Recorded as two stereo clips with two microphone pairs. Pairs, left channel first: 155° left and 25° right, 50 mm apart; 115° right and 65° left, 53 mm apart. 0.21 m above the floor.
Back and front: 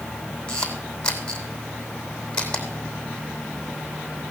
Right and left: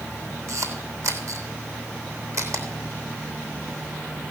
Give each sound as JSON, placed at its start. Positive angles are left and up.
{"t": 0.5, "sound": "a camera shutter", "azimuth_deg": 85, "distance_m": 3.0}